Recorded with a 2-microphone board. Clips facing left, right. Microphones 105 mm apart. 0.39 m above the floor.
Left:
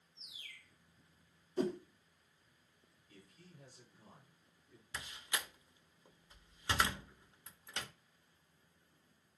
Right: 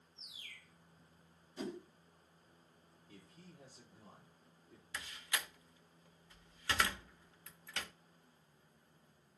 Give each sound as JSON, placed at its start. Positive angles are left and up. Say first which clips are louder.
{"t": 0.1, "sound": "a bird", "louder": "even", "side_deg": -40, "distance_m": 6.0}
{"t": 1.6, "sound": "a whoosh", "louder": "left 8 dB", "side_deg": 45, "distance_m": 1.0}
{"t": 3.1, "sound": "a man speaking", "louder": "right 2 dB", "side_deg": -40, "distance_m": 7.5}
{"t": 4.9, "sound": "a door slam", "louder": "even", "side_deg": 20, "distance_m": 0.6}